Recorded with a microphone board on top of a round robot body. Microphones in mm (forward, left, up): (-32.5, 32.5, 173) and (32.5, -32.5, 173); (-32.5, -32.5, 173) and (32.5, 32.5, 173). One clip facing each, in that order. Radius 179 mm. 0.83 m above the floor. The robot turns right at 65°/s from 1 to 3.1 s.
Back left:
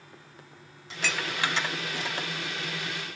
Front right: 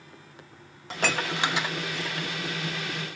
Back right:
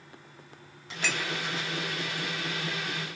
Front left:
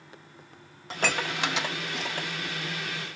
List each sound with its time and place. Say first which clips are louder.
0.9 s dishes clattering: front right 4 dB, front left 4 dB; 5° right, 0.6 m; by 2.3 s 80° left, 0.6 m